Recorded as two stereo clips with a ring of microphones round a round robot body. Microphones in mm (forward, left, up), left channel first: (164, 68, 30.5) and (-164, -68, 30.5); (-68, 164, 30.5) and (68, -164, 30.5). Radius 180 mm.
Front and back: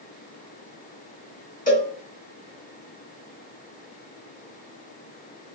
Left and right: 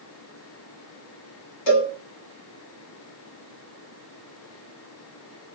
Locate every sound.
1.7 s a cowbell: 95° left, 2 m